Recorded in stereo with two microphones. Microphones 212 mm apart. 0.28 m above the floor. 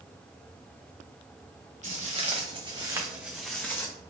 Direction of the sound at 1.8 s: 35° right (ahead or behind).